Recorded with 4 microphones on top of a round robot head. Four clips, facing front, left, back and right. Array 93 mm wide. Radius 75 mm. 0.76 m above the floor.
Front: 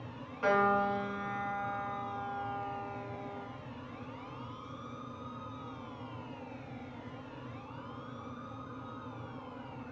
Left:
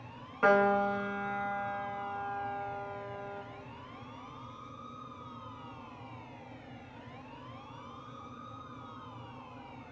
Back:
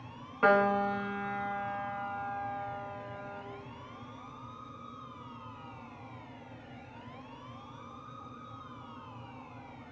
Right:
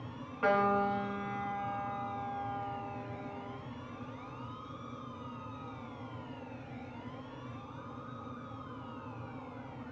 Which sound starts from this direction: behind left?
A piano, at 0.4 s.